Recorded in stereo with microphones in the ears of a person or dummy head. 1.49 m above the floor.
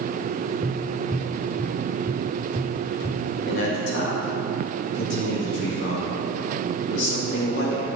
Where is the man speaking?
65° left (ahead or behind), 1.9 m.